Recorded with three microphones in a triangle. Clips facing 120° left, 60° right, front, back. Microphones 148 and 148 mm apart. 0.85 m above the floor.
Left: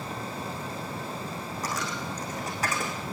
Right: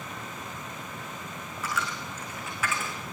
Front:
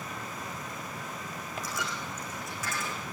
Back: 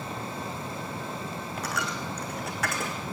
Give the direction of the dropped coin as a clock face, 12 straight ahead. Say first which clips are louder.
Even, back 5 dB; 6 o'clock.